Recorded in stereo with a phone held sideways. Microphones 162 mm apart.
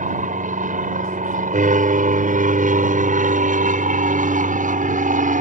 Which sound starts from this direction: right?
An aircraft, at 0.0 s.